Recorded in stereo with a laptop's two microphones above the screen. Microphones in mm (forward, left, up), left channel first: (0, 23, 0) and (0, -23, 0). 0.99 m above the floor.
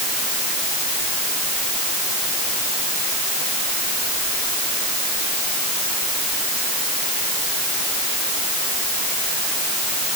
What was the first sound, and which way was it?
Only background noise.